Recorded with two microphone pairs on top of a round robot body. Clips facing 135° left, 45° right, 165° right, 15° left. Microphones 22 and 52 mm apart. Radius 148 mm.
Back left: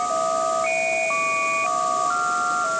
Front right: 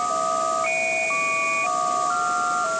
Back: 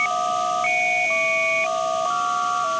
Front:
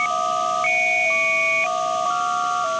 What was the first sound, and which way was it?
Only background noise.